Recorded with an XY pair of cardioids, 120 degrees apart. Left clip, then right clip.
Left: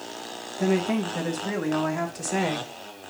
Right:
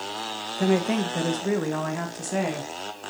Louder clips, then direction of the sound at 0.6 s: Right 1 dB; 35° right.